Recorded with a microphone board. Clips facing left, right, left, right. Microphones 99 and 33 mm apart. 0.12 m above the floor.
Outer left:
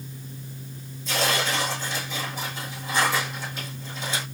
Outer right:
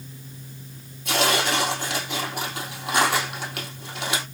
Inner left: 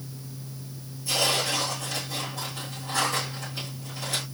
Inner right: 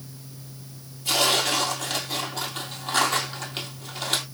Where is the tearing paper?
70° right (ahead or behind), 2.5 m.